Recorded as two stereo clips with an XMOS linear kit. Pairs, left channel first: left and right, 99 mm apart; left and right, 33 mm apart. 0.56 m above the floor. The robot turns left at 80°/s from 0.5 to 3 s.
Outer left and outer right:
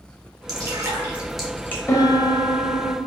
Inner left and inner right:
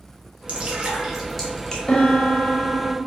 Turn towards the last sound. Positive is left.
turn(degrees=60)